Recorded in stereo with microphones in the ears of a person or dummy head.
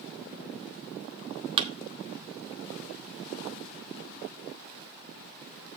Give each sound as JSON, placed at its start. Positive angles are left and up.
{"t": 1.6, "sound": "a thud", "side_deg": -30, "distance_m": 0.9}